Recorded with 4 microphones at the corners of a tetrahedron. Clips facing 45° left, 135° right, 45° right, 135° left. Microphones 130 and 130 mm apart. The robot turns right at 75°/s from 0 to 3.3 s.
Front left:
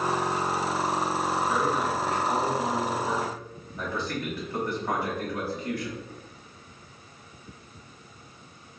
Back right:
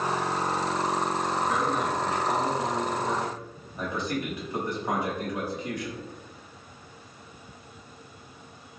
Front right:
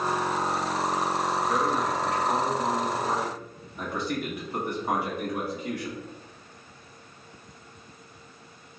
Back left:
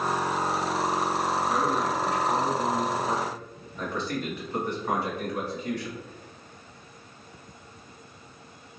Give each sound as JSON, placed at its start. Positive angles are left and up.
{"t": 1.4, "sound": "a man speaking", "azimuth_deg": 120, "distance_m": 1.1}